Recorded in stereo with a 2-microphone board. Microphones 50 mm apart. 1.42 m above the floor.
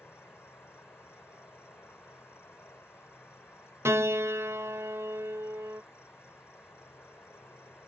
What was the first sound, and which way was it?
An insect, 65° left (ahead or behind).